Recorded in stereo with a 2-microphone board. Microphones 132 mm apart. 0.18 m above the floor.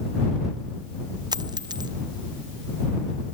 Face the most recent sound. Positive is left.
turn(degrees=-30)  # may be behind; listen again after turning